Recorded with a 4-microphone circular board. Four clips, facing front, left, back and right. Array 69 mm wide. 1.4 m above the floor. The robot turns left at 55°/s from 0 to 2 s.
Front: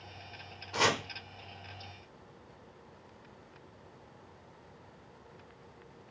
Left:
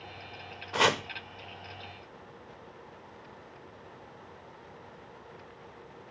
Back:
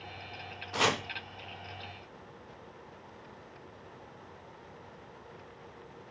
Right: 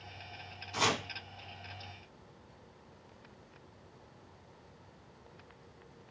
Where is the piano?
I don't hear a piano.